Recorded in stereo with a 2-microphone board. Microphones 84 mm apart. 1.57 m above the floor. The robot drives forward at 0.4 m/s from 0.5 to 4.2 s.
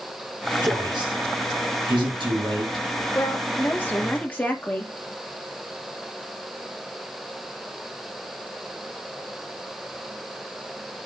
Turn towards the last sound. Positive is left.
turn(degrees=20)  # may be behind; listen again after turning